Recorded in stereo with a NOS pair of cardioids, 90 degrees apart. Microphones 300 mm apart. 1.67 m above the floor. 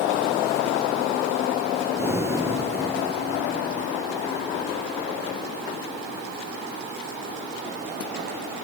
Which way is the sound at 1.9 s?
10° right.